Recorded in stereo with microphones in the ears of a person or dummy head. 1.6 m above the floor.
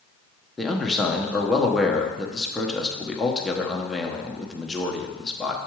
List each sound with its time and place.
0.6 s a man speaking: centre (ahead or behind), 1.1 m